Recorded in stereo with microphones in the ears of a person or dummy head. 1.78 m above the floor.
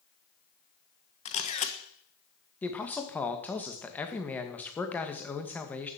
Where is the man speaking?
15° left (ahead or behind), 2 m.